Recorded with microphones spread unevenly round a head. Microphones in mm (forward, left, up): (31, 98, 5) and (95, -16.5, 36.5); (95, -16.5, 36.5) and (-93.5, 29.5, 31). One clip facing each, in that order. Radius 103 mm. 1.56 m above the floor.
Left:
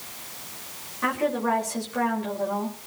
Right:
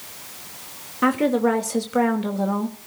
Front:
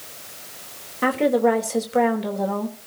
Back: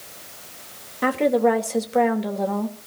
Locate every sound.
1.0 s a woman speaking: 105° right, 3 m